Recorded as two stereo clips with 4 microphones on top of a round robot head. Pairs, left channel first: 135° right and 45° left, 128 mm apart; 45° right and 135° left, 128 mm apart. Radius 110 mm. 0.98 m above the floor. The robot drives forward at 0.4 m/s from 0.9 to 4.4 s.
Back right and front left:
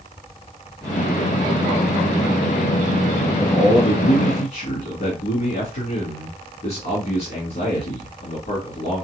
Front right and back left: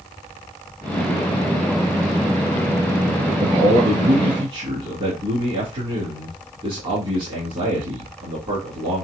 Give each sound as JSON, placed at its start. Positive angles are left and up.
{"t": 3.4, "sound": "a man speaking", "azimuth_deg": -170, "distance_m": 1.9}